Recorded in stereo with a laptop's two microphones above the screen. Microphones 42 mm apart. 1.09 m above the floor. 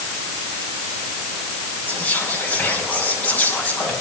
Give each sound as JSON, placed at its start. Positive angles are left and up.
{"t": 1.9, "sound": "whispering", "side_deg": 45, "distance_m": 7.0}